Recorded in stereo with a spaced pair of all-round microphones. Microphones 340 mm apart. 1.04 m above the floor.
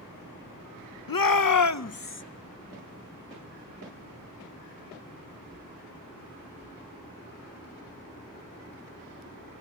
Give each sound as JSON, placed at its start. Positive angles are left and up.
{"t": 1.1, "sound": "a shout", "side_deg": 75, "distance_m": 0.6}